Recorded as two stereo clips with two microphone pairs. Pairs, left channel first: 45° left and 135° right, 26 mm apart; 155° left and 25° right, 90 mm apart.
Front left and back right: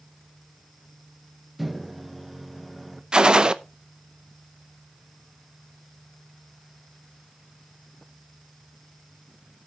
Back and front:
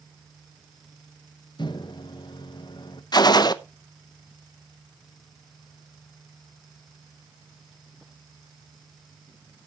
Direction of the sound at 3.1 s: Straight behind.